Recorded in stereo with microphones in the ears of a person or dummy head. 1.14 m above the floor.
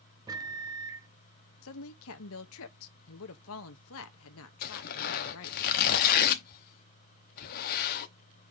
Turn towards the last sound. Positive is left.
turn(degrees=50)  # may be behind; listen again after turning